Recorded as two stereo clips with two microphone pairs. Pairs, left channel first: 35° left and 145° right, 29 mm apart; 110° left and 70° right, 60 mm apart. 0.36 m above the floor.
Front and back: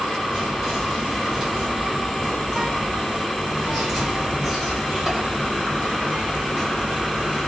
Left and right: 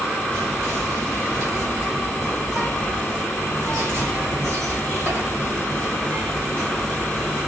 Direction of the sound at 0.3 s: 65° right.